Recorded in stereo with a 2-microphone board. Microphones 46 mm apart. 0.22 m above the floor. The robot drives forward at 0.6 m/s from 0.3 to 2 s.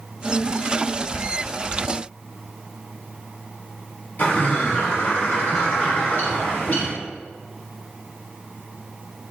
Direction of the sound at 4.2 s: 55° left (ahead or behind).